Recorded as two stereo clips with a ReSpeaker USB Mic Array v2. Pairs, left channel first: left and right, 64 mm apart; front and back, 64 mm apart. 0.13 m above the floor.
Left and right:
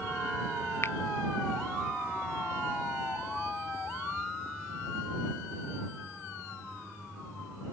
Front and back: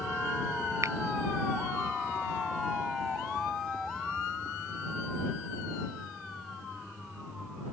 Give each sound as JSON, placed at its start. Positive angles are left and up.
{"t": 0.8, "sound": "a finger snap", "azimuth_deg": 140}